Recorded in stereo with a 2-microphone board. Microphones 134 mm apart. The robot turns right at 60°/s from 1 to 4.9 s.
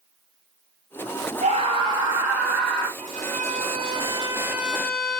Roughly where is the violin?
Right.